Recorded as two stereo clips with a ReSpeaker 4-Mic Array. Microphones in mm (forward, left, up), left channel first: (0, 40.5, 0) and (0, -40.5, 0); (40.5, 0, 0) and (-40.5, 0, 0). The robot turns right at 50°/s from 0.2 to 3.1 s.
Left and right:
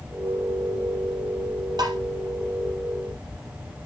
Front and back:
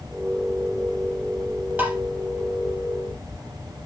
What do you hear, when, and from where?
1.8 s tapping: 115° right, 3.5 m; by 2.0 s 105° right, 3.5 m